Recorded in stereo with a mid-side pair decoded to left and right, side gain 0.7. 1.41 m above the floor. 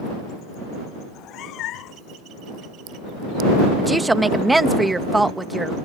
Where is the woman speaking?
10° right.